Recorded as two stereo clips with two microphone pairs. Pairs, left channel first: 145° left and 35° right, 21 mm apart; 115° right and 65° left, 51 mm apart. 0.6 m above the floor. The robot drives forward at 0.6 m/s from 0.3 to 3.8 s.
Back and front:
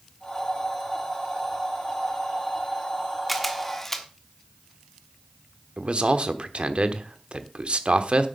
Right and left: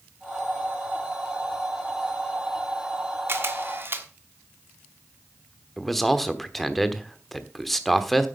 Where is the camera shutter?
55° left, 1.4 m; by 4.1 s 70° left, 1.3 m.